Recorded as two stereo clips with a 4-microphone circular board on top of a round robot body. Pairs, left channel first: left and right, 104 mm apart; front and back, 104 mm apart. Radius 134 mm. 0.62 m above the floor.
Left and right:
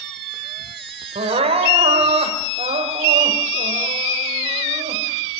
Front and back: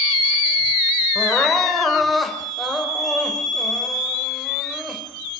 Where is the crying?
90° right, 3 m.